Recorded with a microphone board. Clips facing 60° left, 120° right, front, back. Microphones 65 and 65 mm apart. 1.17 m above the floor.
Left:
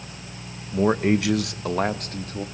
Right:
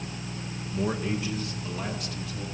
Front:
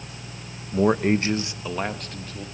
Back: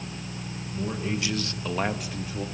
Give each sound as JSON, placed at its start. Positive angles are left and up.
{"t": 0.7, "sound": "a man speaking", "azimuth_deg": 0, "distance_m": 0.9}